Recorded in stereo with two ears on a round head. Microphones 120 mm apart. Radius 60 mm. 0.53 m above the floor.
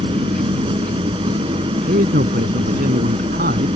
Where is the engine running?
40° right (ahead or behind).